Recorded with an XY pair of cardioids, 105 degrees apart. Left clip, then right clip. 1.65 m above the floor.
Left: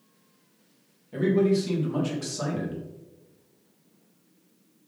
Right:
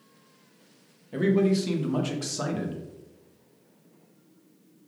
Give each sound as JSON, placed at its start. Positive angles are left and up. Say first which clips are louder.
{"t": 1.1, "sound": "a man speaking", "louder": "left 1 dB", "azimuth_deg": -30, "distance_m": 0.9}